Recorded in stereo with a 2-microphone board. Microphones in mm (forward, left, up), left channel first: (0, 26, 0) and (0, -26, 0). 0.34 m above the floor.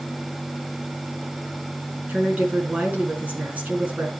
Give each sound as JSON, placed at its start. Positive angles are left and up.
{"t": 2.1, "sound": "a woman speaking", "side_deg": -30, "distance_m": 4.5}